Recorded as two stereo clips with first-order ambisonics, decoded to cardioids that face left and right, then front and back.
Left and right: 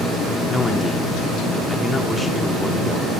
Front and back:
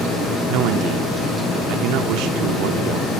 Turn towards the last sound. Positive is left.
turn(degrees=170)